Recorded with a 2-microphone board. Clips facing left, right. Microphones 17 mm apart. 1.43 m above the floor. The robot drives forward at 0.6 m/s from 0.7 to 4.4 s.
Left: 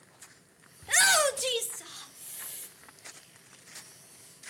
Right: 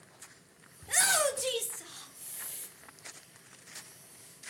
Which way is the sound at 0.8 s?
40° left (ahead or behind).